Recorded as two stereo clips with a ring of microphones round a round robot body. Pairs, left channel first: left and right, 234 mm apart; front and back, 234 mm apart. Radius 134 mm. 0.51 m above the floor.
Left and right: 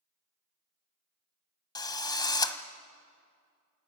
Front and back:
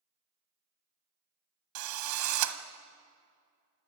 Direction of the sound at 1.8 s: 165° left.